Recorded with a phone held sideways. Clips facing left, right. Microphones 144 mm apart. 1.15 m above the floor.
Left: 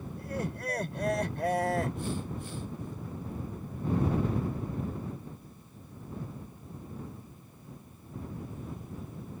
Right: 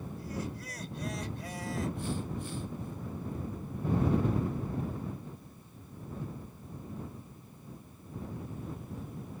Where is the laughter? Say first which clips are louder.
Left 5 dB; 60° left (ahead or behind).